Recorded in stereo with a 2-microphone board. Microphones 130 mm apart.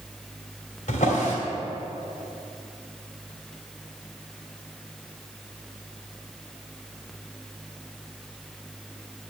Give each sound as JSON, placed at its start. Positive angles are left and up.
{"t": 0.9, "sound": "a drawer", "side_deg": 75, "distance_m": 2.5}